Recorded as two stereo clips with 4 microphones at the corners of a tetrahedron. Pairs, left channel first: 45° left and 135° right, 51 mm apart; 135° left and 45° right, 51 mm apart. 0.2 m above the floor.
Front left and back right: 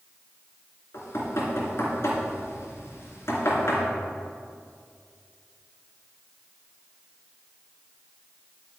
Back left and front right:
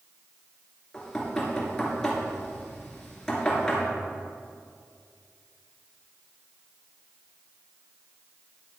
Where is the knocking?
60° left, 2.5 m.